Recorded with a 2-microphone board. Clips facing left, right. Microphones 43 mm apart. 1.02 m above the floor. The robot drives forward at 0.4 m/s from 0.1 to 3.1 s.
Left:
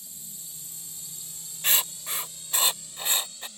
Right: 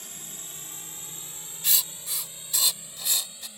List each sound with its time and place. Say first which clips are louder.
0.0 s a drone: right 5 dB; 60° right (ahead or behind); by 3.6 s 20° right (ahead or behind)
1.6 s writing: left 4 dB; 40° left (ahead or behind); by 3.5 s 35° left (ahead or behind)